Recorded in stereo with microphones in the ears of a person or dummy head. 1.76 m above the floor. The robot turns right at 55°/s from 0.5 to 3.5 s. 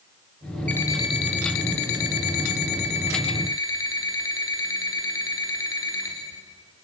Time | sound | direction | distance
0.7 | an alarm clock | 5° left | 3 m